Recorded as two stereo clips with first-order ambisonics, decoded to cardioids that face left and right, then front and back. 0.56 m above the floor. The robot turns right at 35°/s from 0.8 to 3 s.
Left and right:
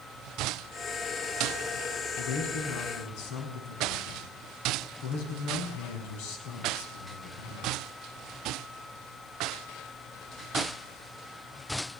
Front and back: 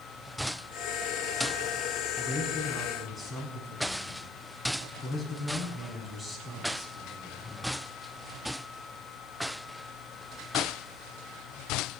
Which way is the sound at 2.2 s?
65° left.